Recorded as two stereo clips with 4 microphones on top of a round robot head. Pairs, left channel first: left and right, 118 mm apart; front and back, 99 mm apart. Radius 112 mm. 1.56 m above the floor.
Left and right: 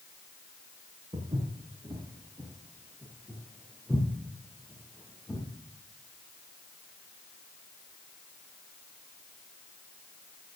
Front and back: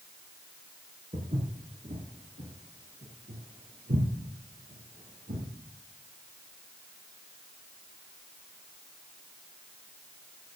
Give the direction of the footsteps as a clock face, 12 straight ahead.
5 o'clock.